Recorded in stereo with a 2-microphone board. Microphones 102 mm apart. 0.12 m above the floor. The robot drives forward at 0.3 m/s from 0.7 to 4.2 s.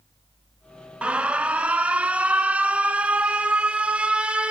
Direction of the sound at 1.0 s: 10° right (ahead or behind).